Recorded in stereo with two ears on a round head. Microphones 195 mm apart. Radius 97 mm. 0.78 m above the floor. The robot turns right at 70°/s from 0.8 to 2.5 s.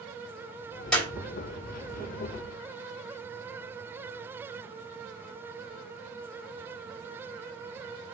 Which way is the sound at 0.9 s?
5° left (ahead or behind).